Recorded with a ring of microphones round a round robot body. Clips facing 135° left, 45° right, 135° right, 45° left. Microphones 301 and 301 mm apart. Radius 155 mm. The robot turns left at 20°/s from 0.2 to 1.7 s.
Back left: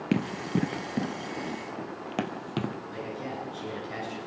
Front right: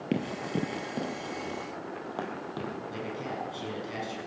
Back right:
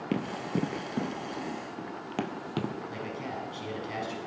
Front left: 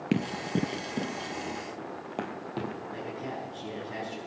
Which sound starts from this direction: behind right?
A man speaking, at 2.9 s.